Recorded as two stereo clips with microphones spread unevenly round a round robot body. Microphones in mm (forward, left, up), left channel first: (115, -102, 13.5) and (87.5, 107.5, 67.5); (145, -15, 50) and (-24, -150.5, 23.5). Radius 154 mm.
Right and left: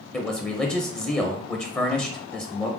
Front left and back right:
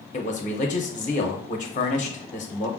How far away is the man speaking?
About 0.7 m.